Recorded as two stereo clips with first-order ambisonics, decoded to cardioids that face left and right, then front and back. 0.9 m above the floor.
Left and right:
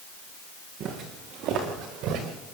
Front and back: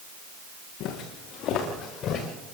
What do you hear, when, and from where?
0.8 s footsteps: 40° right, 3.5 m; by 2.3 s 55° right, 4.5 m